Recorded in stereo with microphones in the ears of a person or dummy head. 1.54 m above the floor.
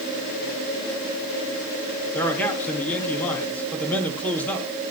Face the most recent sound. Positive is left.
turn(degrees=10)  # may be behind; listen again after turning